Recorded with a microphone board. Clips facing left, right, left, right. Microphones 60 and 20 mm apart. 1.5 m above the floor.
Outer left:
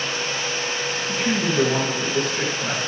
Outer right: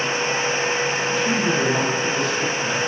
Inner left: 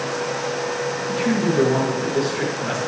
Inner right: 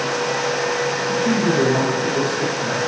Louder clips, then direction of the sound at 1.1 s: Outer left 1 dB, inner right 1 dB; 40° left (ahead or behind).